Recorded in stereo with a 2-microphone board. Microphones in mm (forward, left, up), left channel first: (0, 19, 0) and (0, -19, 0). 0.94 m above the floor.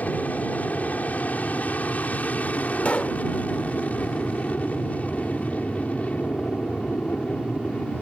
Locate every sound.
0.0 s an aircraft: 45° left (ahead or behind); by 8.0 s 40° left (ahead or behind)
2.9 s a pop: 40° left (ahead or behind)